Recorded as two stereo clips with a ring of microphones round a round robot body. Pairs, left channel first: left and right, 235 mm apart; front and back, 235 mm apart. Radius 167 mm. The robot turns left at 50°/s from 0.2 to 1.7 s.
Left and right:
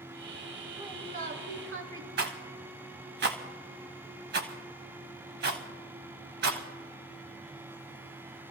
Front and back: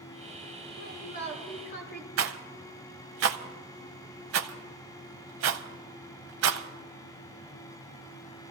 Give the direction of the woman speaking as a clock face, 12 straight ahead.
1 o'clock.